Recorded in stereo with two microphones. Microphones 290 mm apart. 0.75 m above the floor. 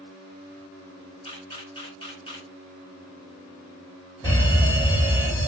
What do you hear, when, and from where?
1.2 s a camera shutter: 20° left (ahead or behind), 1.9 m
4.2 s a fire alarm: 15° left (ahead or behind), 1.5 m